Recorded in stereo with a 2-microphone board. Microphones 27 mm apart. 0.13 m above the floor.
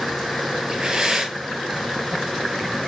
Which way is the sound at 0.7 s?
25° right (ahead or behind).